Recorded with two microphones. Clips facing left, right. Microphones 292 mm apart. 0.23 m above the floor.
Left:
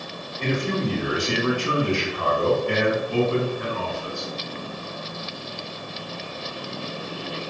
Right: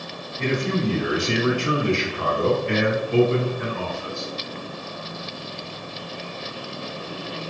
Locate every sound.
0.4 s a man speaking: 25° right (ahead or behind), 1.8 m